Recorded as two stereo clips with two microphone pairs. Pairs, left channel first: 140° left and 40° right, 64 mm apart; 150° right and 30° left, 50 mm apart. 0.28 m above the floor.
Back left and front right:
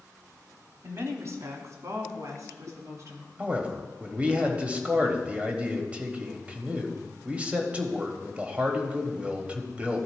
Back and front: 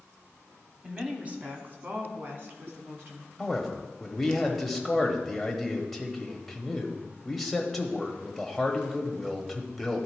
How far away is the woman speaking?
About 1.3 m.